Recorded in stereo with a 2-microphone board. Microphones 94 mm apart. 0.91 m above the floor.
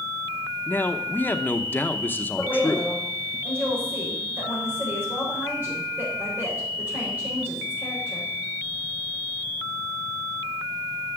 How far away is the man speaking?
About 0.9 m.